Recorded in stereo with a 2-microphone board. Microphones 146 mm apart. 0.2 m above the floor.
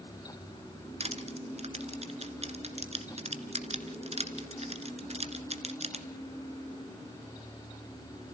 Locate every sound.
1.0 s crushing: 45° right (ahead or behind), 1.7 m